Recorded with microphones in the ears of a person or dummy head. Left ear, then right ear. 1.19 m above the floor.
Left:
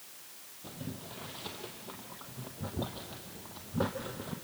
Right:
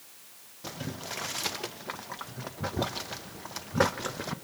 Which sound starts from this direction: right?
Boiling, at 0.6 s.